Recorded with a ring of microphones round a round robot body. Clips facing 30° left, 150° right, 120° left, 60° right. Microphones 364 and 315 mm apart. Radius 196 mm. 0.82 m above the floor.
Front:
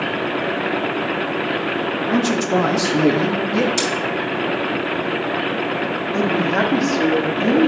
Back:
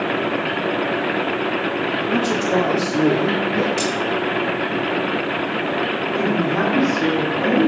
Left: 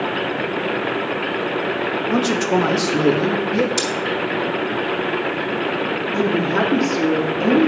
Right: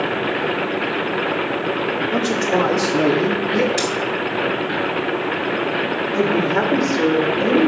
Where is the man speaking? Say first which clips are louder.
Front 2 dB, left 3 dB; 105° left, 1.5 m; by 3.7 s 50° left, 1.6 m.